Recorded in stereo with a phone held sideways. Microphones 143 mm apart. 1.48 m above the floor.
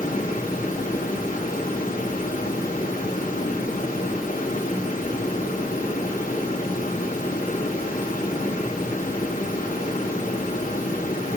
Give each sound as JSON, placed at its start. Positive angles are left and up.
{"t": 0.0, "sound": "running water", "side_deg": 85, "distance_m": 2.5}